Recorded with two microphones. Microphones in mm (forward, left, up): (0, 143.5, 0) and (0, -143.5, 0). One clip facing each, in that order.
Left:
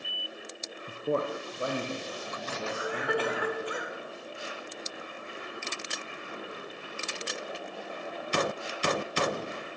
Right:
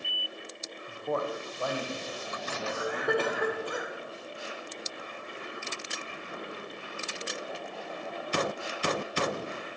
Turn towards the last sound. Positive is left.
turn(degrees=-50)  # may be behind; listen again after turning